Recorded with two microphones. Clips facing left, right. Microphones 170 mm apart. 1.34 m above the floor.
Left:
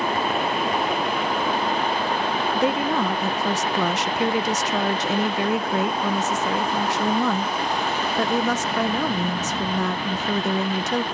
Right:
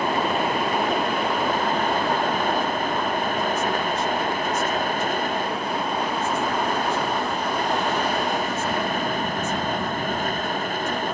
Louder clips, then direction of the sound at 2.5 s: Left 3 dB; 80° left.